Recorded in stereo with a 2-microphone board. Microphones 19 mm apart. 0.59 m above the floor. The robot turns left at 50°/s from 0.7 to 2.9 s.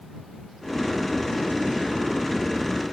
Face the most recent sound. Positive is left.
No sound to turn to.